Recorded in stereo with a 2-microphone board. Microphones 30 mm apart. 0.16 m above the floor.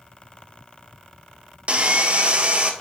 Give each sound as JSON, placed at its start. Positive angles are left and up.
{"t": 1.7, "sound": "sawing", "side_deg": -40, "distance_m": 0.8}